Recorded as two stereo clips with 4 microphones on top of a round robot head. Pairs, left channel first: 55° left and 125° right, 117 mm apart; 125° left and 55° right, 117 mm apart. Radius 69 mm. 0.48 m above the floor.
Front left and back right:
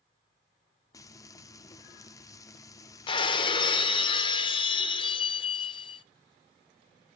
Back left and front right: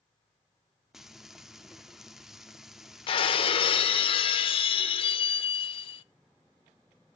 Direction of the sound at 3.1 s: 95° left.